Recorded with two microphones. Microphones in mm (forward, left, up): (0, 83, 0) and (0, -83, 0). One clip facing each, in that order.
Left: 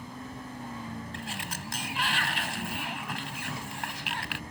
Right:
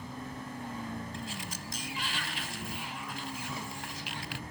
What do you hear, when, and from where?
1.1 s a sliding door: 80° left